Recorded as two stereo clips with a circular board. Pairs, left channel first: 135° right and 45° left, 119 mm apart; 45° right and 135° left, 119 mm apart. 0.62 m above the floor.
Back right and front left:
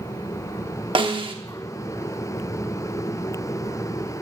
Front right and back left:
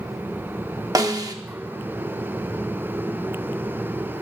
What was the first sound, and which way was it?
A snare drum, 80° left.